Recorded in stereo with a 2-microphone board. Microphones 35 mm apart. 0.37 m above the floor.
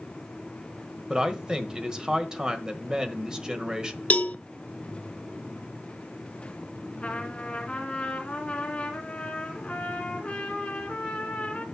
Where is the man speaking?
20° right (ahead or behind), 1.3 m.